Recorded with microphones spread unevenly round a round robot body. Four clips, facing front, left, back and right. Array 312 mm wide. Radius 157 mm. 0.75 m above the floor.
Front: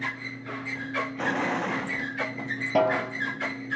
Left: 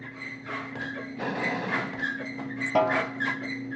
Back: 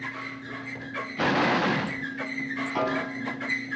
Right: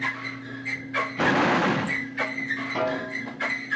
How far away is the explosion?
About 1.1 m.